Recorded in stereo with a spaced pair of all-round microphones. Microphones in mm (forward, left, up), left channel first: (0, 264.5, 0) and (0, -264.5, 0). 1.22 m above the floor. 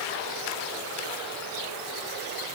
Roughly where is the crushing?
No crushing in this recording.